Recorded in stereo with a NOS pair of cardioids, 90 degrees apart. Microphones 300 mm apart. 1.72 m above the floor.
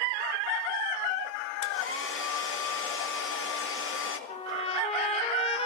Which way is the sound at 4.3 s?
20° left.